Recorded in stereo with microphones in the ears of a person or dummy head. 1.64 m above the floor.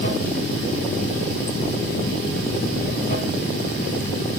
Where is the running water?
50° left (ahead or behind), 2.5 m.